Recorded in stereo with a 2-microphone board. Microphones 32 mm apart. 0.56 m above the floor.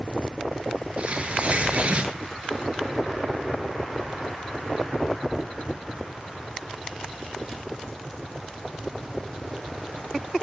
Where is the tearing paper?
45° right (ahead or behind), 8.5 m.